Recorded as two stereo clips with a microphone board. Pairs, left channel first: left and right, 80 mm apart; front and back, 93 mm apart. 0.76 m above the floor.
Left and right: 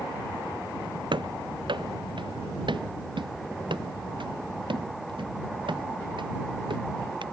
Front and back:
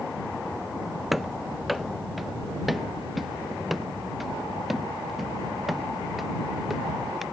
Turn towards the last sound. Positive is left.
turn(degrees=-90)